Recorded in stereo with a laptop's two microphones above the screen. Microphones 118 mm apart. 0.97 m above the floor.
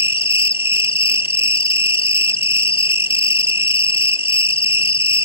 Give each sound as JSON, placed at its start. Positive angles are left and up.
{"t": 0.0, "sound": "an insect", "side_deg": 50}